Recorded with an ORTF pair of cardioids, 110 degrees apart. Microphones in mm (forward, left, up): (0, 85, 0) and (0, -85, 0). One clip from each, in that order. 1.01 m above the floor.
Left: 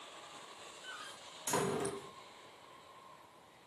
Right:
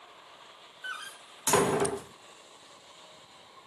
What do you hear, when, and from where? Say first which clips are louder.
0.8 s a door slam: right 10 dB; 60° right, 0.9 m